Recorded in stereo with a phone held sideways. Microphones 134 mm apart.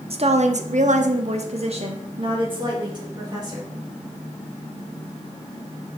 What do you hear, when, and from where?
0.1 s a woman speaking: 50° right (ahead or behind), 0.7 m; by 3.7 s 30° right (ahead or behind), 1.9 m